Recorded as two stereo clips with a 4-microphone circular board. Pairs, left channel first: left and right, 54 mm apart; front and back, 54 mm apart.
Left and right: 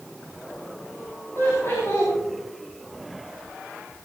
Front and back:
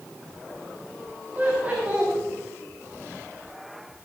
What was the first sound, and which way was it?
Laughter, 125° left.